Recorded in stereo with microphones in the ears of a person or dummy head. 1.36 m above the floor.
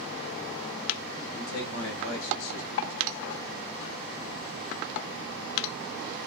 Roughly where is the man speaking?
Left.